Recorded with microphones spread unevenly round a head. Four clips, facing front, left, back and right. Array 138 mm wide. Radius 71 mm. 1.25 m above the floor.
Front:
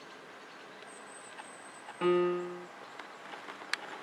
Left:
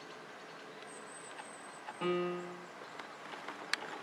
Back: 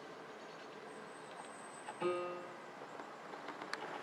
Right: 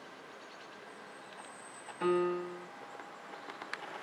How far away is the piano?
About 1.0 m.